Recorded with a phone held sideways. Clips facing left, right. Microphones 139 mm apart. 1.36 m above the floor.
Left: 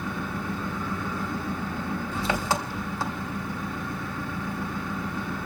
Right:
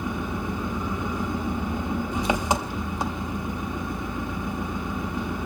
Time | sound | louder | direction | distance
0.0 | an engine running | right 3 dB | 20° right (ahead or behind) | 0.8 m